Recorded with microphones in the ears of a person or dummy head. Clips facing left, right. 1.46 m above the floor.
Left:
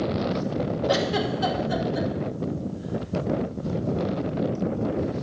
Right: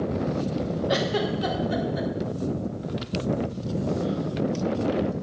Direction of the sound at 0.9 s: 80° left.